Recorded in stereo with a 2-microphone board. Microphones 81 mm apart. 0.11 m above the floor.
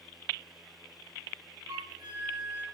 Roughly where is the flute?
Right.